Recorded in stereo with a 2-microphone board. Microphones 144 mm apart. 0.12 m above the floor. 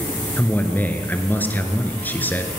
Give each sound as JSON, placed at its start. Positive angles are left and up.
{"t": 0.4, "sound": "a man speaking", "side_deg": 15, "distance_m": 1.4}